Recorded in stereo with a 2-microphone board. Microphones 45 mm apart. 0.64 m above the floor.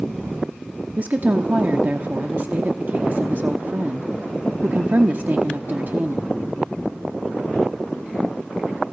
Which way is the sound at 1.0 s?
45° right (ahead or behind).